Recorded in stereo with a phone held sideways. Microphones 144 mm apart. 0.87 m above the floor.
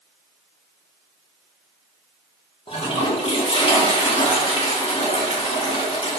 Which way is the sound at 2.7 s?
40° left (ahead or behind).